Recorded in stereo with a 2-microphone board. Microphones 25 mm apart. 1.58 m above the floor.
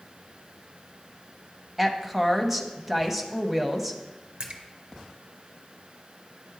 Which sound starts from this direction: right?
A splash, at 4.4 s.